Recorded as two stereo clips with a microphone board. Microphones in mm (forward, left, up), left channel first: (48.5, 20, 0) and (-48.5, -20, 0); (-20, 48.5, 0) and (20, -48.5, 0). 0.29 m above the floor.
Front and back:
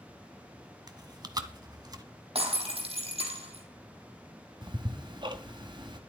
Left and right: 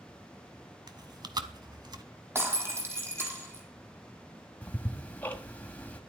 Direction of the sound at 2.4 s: 135° right.